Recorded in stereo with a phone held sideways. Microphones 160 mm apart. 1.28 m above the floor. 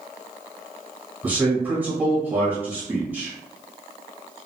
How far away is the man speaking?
About 1.8 m.